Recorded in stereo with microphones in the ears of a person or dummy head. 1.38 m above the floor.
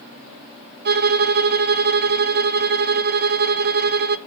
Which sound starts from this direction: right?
A violin, at 0.8 s.